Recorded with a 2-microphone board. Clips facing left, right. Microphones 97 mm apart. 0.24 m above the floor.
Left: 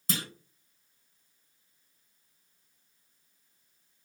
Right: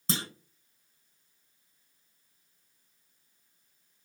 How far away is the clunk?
About 0.5 m.